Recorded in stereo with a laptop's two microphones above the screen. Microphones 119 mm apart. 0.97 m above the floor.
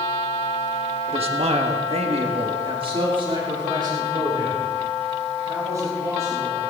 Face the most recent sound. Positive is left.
turn(degrees=-25)  # may be behind; listen again after turning